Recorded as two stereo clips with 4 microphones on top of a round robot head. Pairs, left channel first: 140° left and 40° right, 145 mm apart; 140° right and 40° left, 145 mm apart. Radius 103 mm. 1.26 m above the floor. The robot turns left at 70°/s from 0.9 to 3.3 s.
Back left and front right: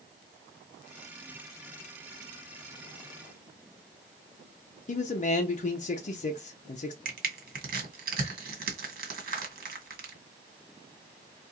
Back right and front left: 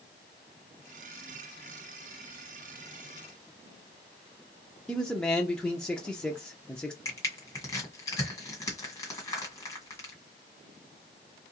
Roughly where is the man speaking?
Behind left.